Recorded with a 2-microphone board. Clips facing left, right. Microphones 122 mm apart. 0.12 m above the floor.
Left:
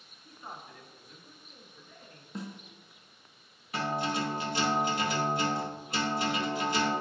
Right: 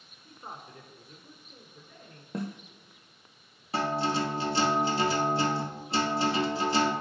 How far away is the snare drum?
About 0.6 m.